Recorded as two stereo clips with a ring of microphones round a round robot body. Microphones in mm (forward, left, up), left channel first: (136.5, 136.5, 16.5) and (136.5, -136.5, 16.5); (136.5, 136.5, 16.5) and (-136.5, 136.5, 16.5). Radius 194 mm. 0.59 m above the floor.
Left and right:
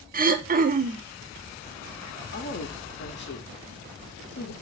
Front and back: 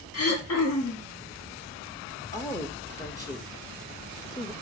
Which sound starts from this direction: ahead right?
Throat clearing, at 0.1 s.